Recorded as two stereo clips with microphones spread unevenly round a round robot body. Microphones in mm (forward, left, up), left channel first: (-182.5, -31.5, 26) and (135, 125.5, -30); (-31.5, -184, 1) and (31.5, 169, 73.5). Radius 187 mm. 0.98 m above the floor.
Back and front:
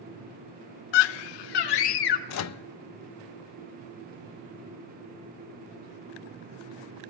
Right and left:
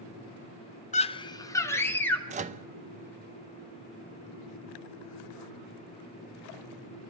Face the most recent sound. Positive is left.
turn(degrees=155)